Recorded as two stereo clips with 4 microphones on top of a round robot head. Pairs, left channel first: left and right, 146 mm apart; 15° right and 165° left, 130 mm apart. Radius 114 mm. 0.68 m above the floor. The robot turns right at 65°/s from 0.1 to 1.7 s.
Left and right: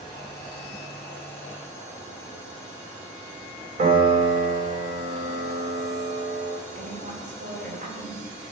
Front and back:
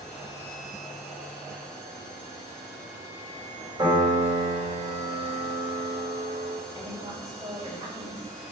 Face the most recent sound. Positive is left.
turn(degrees=-125)